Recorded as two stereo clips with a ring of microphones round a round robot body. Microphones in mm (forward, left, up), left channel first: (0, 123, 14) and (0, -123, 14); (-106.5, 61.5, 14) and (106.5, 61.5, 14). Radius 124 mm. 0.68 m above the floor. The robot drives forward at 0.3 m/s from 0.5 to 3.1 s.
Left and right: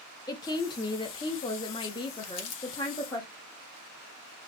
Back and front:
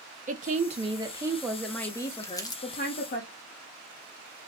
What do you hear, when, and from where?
0.3 s a woman speaking: 25° left, 0.6 m; by 3.2 s 160° left, 0.7 m
2.2 s crumpling: 105° left, 0.9 m; by 2.6 s 110° left, 0.9 m